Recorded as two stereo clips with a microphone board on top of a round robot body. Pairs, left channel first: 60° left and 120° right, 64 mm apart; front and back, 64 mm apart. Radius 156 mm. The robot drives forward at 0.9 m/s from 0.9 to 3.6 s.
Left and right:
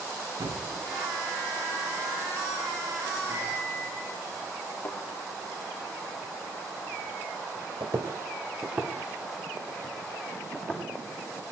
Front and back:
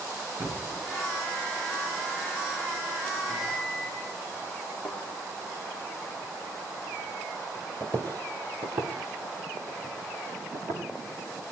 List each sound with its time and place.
0.4 s a thud: 120° right, 2.5 m
3.3 s a microwave: 165° right, 6 m
4.8 s a thud: 110° left, 5 m
7.8 s footsteps: 135° right, 0.8 m; by 10.8 s 135° left, 2 m